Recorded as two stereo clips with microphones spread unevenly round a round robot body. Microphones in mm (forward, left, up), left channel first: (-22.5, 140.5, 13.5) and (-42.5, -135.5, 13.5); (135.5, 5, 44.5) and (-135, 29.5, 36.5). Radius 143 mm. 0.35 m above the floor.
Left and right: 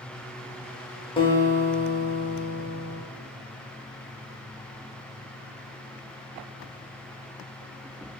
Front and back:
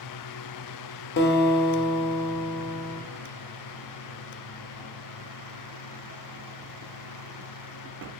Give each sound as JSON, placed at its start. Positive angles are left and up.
{"t": 1.2, "sound": "a guitar", "azimuth_deg": 20, "distance_m": 0.6}